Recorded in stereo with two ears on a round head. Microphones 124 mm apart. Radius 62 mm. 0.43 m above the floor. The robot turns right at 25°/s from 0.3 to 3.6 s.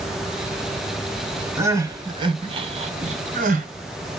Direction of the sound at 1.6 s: 20° right (ahead or behind).